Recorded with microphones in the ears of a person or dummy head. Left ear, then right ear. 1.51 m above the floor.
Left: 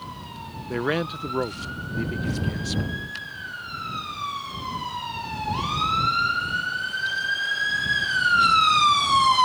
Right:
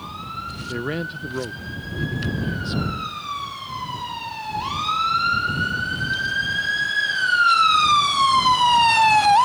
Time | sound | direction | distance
0.7 | a man speaking | 30° left (ahead or behind) | ?